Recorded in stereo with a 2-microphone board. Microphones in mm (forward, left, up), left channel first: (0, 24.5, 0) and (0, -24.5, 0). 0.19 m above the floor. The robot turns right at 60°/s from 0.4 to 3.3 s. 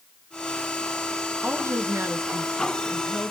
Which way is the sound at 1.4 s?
120° right.